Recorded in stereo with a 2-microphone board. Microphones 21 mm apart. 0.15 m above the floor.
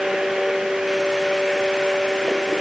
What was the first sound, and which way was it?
Only background noise.